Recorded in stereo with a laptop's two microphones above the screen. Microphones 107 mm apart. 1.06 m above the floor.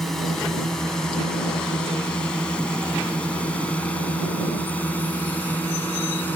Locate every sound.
0.0 s a drone: 5° left (ahead or behind); by 6.4 s 20° left (ahead or behind)